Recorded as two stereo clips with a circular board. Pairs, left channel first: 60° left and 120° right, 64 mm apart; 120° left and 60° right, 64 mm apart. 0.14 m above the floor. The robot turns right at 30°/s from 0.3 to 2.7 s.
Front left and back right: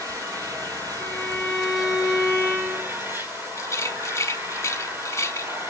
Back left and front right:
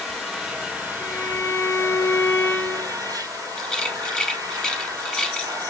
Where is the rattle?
40° left, 1.2 m.